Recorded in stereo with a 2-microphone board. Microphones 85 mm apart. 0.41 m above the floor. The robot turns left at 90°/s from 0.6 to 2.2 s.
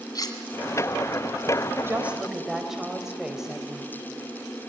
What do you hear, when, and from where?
0.1 s cutlery clinking: 50° left (ahead or behind), 2 m
1.9 s a woman speaking: 145° right, 2.5 m; by 3.9 s 175° right, 2.5 m